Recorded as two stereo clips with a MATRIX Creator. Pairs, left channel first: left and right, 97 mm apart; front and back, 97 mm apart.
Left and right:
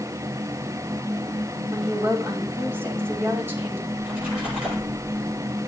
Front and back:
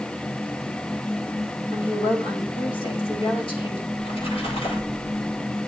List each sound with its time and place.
1.7 s a woman speaking: 25° right, 3.5 m
3.9 s a splash: 10° right, 7.5 m